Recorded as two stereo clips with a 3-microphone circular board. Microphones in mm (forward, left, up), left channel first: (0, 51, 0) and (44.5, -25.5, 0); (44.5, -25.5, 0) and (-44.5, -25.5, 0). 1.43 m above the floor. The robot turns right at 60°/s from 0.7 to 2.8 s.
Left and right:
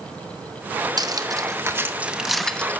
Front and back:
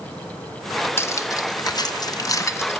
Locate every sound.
1.0 s cutlery clinking: 55° right, 0.7 m; by 2.8 s 55° left, 0.7 m